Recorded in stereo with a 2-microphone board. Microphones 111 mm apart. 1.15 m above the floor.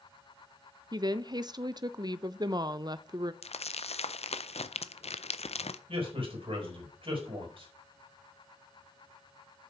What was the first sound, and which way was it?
A woman speaking, 40° right (ahead or behind).